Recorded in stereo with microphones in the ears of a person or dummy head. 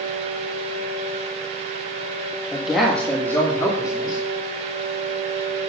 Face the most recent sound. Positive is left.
turn(degrees=20)  # may be behind; listen again after turning